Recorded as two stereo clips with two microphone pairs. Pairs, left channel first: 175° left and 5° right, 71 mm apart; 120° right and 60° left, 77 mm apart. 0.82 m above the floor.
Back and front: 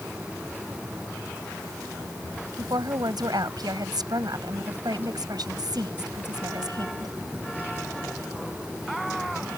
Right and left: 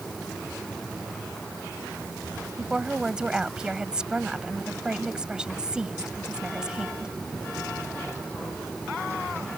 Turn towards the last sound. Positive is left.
turn(degrees=-20)